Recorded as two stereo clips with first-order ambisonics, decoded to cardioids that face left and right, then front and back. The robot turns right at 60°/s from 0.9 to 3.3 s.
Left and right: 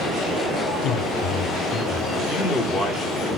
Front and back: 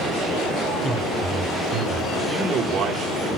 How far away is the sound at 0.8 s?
About 1.0 m.